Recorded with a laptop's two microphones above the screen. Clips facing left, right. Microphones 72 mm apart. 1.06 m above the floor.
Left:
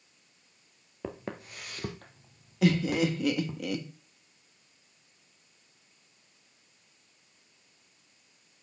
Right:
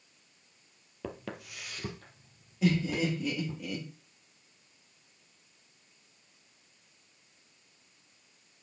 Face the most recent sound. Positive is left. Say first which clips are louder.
# left 3 dB
turn(degrees=70)  # may be behind; listen again after turning